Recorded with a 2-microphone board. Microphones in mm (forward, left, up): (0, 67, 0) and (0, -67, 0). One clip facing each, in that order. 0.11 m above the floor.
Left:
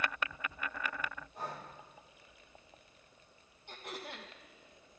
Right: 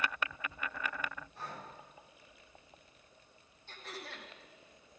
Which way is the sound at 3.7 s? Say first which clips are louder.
Left 2 dB; 15° left (ahead or behind).